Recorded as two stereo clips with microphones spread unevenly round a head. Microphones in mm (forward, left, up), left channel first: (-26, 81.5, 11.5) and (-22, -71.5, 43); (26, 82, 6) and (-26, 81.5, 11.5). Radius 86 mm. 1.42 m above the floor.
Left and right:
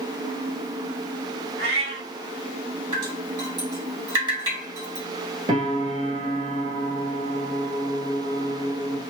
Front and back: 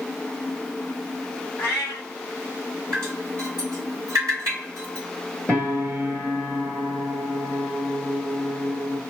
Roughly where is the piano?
Right.